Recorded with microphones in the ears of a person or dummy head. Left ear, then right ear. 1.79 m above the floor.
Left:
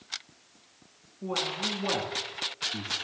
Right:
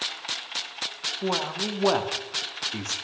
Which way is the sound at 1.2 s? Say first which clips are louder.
Right 1 dB; 30° right (ahead or behind).